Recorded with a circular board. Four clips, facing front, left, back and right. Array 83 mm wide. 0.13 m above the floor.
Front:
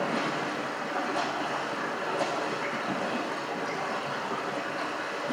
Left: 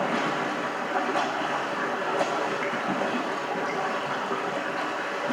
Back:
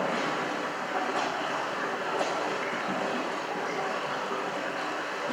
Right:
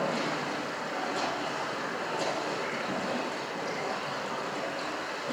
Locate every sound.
0.0 s running water: 100° left, 7 m